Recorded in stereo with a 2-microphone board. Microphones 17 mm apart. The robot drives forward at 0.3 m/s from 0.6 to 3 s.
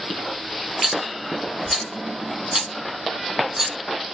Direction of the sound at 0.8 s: 40° right (ahead or behind).